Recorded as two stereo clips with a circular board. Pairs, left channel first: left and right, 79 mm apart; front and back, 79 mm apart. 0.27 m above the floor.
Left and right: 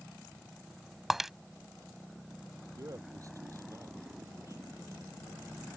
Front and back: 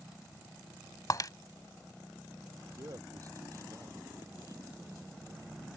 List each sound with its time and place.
1.1 s breaking glass: 5° right
2.8 s a man speaking: 135° right